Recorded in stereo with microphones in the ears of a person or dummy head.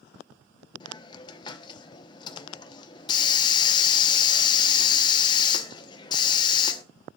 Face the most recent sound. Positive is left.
turn(degrees=25)  # may be behind; listen again after turning